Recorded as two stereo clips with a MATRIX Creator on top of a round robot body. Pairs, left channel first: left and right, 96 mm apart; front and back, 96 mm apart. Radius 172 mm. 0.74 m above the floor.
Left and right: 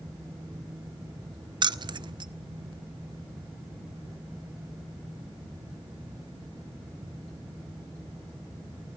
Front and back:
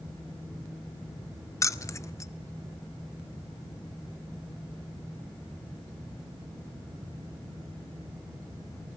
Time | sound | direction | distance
1.6 | keys jangling | 55° right | 0.7 m